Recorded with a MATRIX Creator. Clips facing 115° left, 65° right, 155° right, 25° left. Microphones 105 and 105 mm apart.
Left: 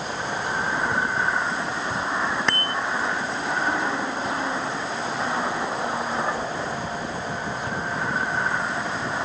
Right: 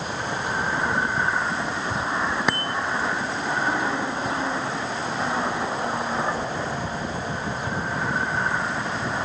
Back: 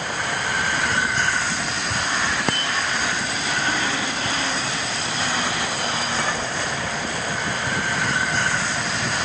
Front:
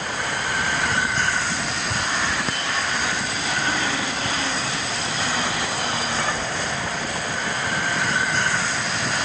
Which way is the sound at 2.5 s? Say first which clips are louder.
Right 1 dB, back 2 dB; 145° right.